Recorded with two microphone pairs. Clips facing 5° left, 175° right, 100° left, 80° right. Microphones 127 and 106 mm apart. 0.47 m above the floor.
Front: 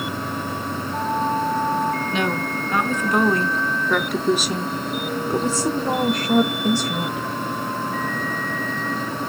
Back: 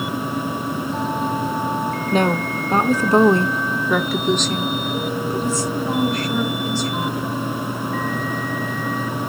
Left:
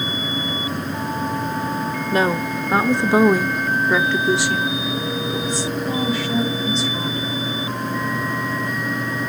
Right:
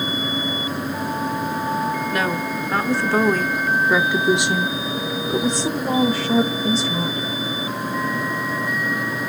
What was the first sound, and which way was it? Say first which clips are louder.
A woman speaking: back 4 dB, left 3 dB; 150° left.